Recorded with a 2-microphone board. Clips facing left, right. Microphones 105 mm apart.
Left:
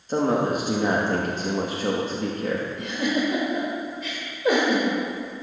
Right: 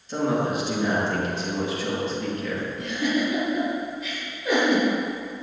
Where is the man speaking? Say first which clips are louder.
Left 2 dB; 45° left (ahead or behind), 1.0 m.